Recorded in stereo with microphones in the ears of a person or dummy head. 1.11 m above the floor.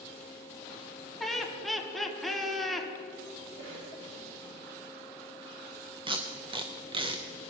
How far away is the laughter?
About 1.0 m.